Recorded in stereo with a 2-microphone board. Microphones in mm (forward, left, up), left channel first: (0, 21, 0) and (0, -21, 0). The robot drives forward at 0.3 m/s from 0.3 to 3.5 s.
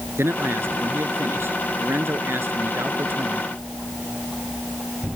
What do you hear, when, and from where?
0.2 s a man speaking: 75° right (ahead or behind); by 3.5 s 70° right (ahead or behind)